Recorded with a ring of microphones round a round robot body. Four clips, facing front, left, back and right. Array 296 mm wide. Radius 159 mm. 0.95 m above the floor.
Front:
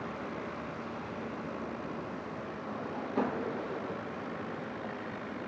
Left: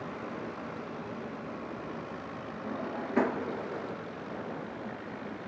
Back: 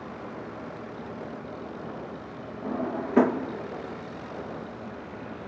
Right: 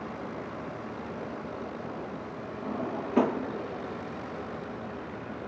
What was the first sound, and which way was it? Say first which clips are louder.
A drawer: right 3 dB, back 10 dB; 165° right.